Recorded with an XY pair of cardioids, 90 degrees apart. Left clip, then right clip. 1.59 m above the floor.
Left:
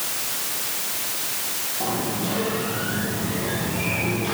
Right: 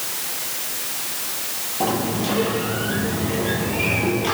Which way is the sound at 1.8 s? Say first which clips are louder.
Right 5 dB; 55° right.